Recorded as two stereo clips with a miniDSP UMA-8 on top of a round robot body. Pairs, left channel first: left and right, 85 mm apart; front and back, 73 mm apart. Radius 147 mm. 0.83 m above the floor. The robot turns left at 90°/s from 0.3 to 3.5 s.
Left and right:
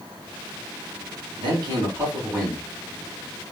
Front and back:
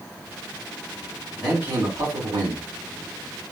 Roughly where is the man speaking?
Right.